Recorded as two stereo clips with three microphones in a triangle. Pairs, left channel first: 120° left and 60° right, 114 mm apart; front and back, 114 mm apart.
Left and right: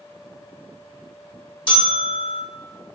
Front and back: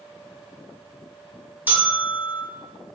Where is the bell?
110° left, 0.9 m.